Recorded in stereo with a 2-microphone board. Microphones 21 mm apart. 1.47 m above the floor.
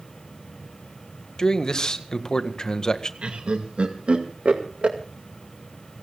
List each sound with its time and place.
1.4 s a man speaking: 35° left (ahead or behind), 1.8 m
3.2 s laughter: 85° right, 2 m